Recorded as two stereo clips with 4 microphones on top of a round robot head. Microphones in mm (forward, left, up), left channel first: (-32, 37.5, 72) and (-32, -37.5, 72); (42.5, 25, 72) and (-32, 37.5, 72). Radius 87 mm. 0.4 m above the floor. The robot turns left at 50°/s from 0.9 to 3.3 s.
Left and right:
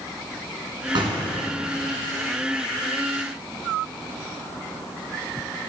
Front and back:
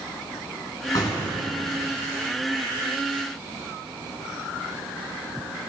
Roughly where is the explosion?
Ahead right.